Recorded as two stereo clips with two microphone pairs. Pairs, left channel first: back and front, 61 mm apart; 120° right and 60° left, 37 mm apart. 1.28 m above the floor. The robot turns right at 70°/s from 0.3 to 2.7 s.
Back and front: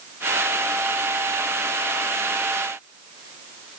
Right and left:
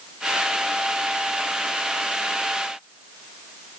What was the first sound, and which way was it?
Only background noise.